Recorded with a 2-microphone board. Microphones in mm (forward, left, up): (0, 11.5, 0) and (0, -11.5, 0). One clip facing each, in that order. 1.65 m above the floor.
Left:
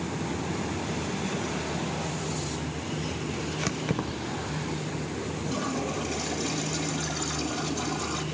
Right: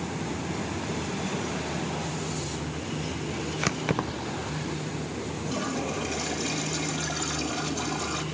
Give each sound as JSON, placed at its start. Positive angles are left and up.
{"t": 3.6, "sound": "keys jangling", "side_deg": -25, "distance_m": 0.7}
{"t": 5.5, "sound": "a toilet flushing", "side_deg": -15, "distance_m": 2.0}